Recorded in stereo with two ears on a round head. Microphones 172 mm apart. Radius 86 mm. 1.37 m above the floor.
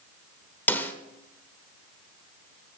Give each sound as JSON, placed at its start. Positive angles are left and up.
{"t": 0.7, "sound": "a snare drum", "side_deg": 10, "distance_m": 1.3}